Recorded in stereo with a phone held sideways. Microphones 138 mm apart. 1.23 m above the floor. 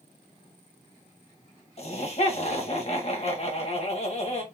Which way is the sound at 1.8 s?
50° left (ahead or behind).